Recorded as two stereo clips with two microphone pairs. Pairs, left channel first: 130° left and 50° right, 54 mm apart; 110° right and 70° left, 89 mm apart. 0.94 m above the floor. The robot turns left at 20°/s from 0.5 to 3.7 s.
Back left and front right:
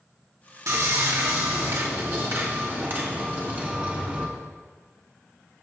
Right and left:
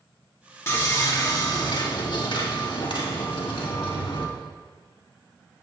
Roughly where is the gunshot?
I don't hear a gunshot.